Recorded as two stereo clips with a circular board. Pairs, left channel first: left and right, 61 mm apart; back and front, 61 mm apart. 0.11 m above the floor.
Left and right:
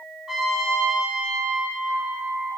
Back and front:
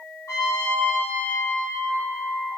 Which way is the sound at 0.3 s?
170° right.